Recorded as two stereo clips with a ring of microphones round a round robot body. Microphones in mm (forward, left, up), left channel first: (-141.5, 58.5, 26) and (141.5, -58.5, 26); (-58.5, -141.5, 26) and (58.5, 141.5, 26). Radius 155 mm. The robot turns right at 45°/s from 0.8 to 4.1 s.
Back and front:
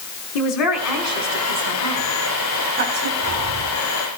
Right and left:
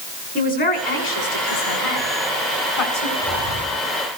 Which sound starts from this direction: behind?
A man speaking, at 0.3 s.